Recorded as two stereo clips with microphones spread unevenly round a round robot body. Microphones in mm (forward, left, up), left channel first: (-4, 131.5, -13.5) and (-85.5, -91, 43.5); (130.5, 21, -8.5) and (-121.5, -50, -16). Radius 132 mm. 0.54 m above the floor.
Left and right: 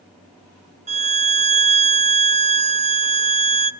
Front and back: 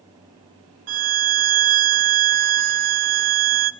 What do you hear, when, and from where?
0.9 s a violin: 175° right, 0.6 m